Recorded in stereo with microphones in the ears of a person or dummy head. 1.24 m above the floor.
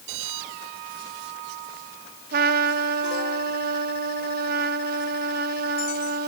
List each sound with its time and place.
2.3 s a trumpet: 50° right (ahead or behind), 0.9 m